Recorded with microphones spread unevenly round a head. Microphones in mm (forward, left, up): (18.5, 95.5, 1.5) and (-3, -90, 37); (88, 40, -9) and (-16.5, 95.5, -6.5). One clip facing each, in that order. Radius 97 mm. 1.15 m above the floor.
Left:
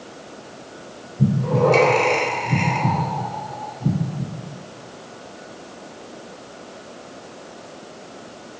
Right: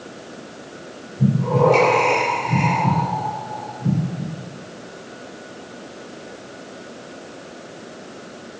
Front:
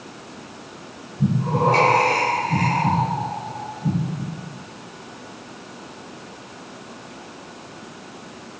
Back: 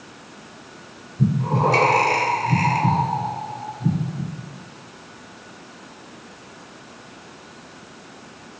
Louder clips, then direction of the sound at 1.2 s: Right 1 dB, even; 150° left.